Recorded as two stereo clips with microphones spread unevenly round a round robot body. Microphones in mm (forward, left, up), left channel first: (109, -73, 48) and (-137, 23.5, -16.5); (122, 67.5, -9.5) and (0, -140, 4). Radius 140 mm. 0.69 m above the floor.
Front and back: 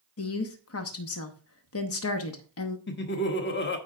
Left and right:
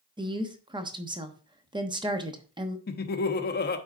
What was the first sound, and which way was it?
A woman speaking, 50° right.